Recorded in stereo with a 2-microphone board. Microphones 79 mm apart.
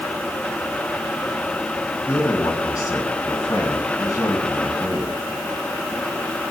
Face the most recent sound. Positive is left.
turn(degrees=50)  # may be behind; listen again after turning